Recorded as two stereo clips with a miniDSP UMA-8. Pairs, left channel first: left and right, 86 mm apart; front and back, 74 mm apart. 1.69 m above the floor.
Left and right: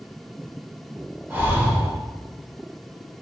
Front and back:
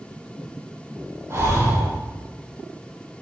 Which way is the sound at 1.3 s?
150° right.